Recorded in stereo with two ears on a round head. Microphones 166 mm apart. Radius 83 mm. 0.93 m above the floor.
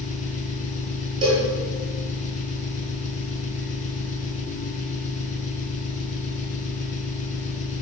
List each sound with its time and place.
0.0 s an engine running: 40° left (ahead or behind), 4.5 m
1.2 s a cowbell: 25° right (ahead or behind), 9.5 m